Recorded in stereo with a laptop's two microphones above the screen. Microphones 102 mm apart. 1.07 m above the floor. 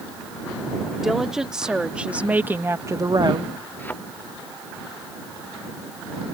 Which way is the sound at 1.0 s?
5° right (ahead or behind).